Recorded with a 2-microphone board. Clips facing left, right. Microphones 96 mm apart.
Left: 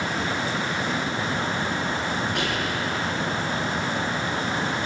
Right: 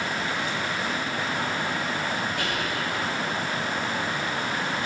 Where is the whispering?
80° left, 7 m.